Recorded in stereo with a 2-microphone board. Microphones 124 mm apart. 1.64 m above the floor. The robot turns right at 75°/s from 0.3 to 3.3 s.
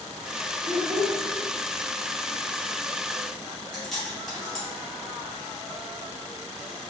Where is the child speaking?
85° right, 1.3 m; by 1.2 s 45° right, 1.3 m.